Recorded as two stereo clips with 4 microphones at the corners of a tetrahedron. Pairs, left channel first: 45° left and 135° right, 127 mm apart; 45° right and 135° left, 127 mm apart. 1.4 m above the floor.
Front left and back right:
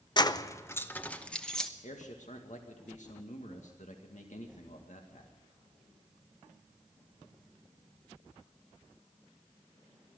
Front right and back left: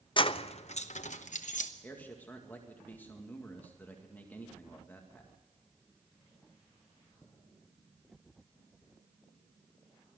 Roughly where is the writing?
I don't hear writing.